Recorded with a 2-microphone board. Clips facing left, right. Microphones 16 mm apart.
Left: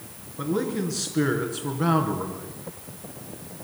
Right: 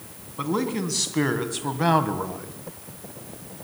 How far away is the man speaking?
About 3.5 m.